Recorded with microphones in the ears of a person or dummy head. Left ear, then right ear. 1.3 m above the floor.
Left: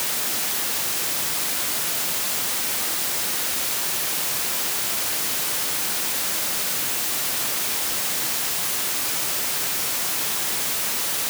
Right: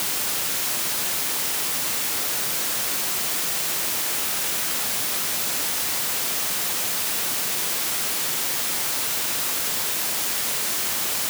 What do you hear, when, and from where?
Only background noise.